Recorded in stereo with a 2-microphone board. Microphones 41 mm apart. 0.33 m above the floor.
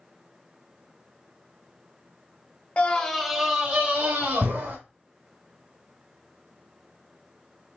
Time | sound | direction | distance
2.8 | a scream | 35° left (ahead or behind) | 1.1 m